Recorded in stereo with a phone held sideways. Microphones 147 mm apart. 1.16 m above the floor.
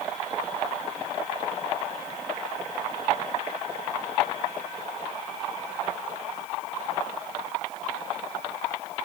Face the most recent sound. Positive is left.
No sound to turn to.